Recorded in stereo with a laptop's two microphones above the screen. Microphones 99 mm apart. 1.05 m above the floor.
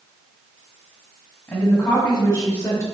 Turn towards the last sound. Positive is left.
turn(degrees=40)  # may be behind; listen again after turning